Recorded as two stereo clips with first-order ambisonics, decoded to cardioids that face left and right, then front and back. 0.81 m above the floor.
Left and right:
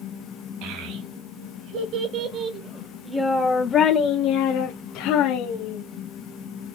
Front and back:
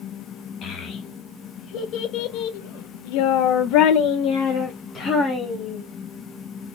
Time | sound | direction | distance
0.6 | a child speaking | 60° right | 2.5 m